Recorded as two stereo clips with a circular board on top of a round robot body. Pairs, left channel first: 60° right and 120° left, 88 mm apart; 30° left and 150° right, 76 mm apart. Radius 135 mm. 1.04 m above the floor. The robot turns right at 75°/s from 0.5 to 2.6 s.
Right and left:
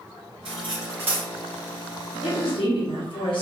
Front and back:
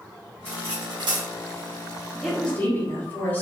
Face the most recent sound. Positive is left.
turn(degrees=-35)